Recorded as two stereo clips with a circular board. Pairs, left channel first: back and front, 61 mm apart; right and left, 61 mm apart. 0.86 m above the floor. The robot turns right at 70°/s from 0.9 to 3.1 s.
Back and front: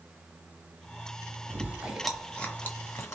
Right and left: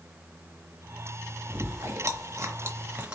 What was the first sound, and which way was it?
Chewing, 45° left.